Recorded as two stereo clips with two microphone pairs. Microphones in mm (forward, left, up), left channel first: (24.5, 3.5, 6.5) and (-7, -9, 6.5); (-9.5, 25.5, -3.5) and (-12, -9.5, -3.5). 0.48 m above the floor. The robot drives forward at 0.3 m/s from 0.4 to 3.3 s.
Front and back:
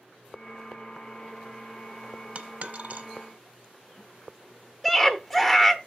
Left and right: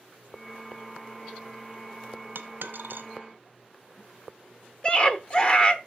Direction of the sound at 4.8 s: 110° left.